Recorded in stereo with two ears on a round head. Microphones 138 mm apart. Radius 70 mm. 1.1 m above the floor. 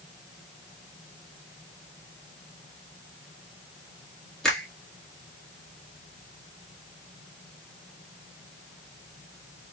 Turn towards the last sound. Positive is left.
turn(degrees=5)  # may be behind; listen again after turning